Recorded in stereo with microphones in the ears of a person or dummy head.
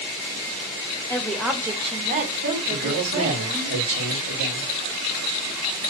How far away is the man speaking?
About 1.3 m.